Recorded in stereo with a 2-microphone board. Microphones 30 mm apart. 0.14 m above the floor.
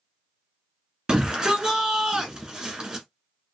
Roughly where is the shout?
Right.